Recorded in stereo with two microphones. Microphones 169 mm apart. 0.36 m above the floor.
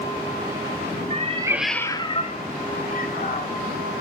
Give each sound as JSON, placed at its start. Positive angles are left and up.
{"t": 1.1, "sound": "a cat meowing", "side_deg": -45, "distance_m": 0.8}